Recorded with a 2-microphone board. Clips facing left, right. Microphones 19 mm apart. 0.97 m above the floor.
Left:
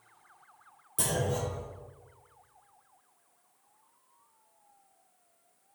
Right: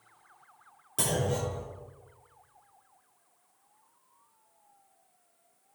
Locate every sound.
1.0 s a clunk: 45° right (ahead or behind), 3 m